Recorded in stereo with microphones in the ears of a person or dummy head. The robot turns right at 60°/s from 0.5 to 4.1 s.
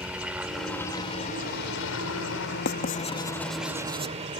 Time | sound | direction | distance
0.0 | a helicopter | 5° right | ?
2.6 | writing | 55° left (ahead or behind) | ?